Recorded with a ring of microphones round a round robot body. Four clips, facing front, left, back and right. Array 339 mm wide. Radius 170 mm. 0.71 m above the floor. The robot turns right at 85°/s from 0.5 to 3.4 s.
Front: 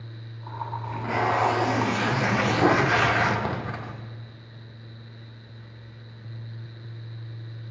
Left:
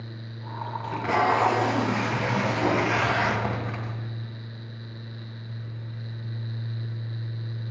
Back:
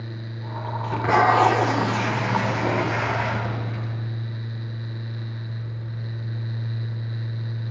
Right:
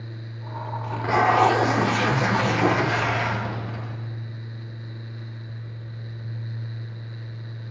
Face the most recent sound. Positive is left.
turn(degrees=30)